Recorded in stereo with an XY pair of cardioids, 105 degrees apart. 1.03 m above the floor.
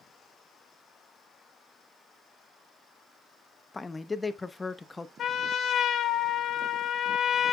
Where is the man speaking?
20° left, 0.8 m.